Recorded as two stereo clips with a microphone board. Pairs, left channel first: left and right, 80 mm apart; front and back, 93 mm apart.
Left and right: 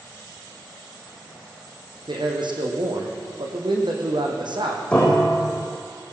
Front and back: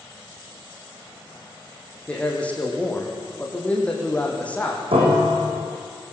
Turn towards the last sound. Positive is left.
turn(degrees=170)